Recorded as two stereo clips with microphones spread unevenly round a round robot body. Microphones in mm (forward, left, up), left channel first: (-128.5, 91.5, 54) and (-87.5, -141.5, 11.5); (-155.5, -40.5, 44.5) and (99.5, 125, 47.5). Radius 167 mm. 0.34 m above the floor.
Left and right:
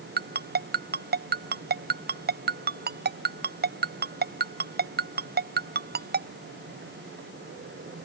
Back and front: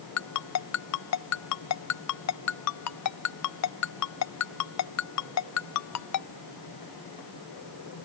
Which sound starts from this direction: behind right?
A ringtone, at 0.2 s.